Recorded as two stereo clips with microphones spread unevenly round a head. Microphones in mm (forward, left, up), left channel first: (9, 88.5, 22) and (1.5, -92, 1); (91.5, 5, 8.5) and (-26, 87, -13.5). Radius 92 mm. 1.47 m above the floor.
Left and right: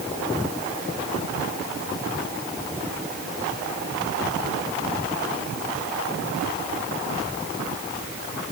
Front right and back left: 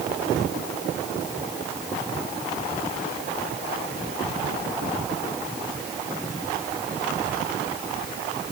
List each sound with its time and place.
Only background noise.